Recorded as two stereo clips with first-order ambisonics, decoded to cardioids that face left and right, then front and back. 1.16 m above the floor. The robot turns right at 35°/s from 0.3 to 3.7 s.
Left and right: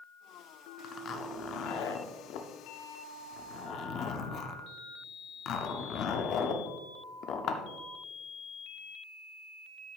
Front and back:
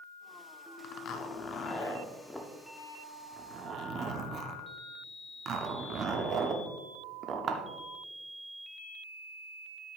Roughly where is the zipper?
Ahead left.